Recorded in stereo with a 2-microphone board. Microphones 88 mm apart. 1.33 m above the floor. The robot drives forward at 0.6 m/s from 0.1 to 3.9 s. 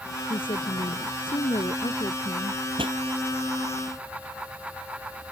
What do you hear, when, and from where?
0.3 s a woman speaking: 80° left; by 2.6 s 75° left (ahead or behind)
2.8 s a pop: 80° right